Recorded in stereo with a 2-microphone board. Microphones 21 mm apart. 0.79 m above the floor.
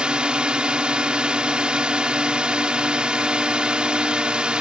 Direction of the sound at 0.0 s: 60° right (ahead or behind).